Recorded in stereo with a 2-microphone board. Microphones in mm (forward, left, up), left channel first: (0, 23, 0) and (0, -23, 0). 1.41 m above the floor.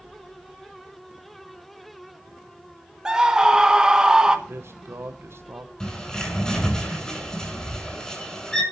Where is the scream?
15° right (ahead or behind), 1.9 m.